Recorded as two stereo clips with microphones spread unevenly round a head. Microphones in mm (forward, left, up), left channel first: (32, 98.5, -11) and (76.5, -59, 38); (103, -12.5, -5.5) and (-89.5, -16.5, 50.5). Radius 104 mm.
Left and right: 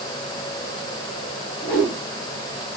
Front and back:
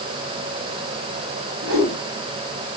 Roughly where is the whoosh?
Behind.